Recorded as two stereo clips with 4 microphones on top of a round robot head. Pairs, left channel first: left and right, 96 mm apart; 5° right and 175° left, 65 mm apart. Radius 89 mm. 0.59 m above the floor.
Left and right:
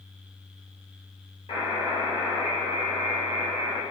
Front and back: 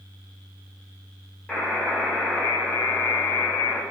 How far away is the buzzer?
About 1.7 m.